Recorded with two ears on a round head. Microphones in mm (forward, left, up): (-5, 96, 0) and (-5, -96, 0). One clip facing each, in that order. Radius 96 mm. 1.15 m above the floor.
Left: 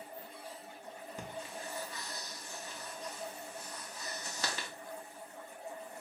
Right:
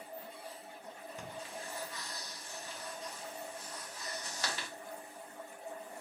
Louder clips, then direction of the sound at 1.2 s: Left 2 dB; 75° left (ahead or behind).